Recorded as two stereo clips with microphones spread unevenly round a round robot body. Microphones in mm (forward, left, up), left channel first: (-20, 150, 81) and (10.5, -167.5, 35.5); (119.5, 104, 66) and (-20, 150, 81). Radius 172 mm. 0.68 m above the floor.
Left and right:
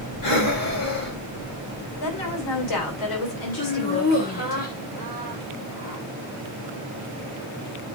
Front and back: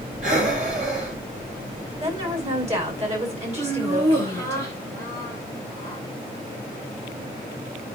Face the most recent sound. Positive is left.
turn(degrees=160)